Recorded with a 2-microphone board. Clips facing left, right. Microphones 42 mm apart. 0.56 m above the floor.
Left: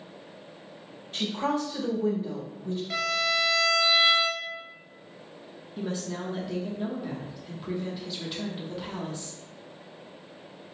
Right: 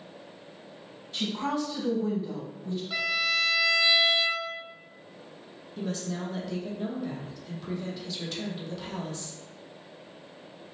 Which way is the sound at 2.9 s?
75° left (ahead or behind).